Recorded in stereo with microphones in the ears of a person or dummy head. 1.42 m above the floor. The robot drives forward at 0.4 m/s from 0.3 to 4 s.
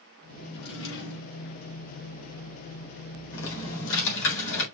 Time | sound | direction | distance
0.5 | a drawer | 65° left (ahead or behind) | 4 m
3.3 | typing on a keyboard | 70° left (ahead or behind) | 3.5 m